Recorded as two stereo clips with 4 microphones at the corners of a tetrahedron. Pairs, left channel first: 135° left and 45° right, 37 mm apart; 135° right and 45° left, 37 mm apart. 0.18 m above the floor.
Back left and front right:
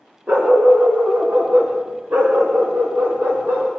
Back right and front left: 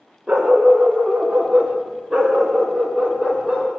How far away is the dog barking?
About 6 m.